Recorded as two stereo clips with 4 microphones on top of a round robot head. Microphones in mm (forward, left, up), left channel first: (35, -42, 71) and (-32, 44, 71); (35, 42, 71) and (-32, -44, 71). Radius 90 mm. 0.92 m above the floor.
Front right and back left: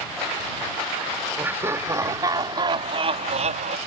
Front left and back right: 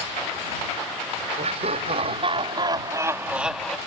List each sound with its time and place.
1.4 s laughter: 160° right; by 3.8 s 135° left